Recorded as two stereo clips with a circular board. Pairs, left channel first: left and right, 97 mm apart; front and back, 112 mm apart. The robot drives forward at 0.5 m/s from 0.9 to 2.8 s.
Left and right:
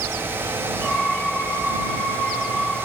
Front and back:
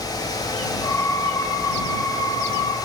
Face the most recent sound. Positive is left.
No sound to turn to.